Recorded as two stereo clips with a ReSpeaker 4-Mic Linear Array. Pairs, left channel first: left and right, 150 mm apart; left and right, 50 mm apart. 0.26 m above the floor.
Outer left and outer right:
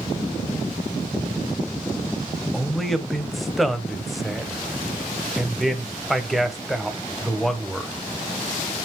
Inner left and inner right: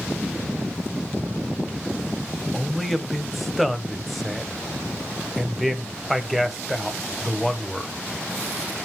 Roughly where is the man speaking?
Centre.